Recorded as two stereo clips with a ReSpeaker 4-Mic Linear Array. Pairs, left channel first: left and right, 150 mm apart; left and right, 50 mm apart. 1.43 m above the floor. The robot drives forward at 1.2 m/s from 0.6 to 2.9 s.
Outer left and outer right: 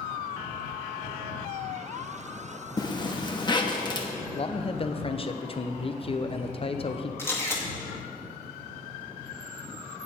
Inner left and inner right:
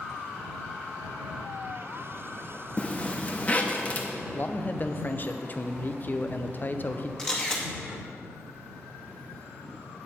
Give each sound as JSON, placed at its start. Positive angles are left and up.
{"t": 2.8, "sound": "a zipper", "side_deg": 25, "distance_m": 1.2}
{"t": 4.3, "sound": "a man speaking", "side_deg": 40, "distance_m": 0.7}
{"t": 7.2, "sound": "a camera shutter", "side_deg": 15, "distance_m": 2.0}